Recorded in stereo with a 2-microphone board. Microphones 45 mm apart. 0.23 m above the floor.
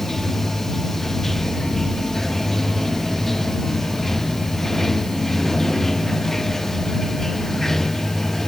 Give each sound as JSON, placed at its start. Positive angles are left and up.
{"t": 0.0, "sound": "running water", "side_deg": 10}